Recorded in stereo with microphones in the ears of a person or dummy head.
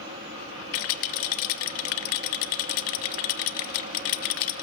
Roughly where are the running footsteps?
No running footsteps in this recording.